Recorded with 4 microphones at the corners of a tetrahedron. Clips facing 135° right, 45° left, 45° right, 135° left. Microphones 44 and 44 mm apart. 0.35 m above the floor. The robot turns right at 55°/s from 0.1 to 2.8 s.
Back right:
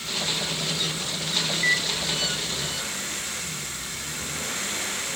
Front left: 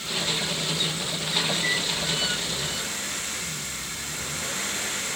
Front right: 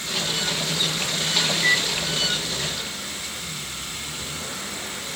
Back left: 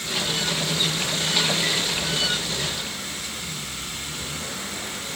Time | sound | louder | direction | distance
1.5 | a microwave | back right 3 dB, front right 4 dB | 120° right | 1.2 m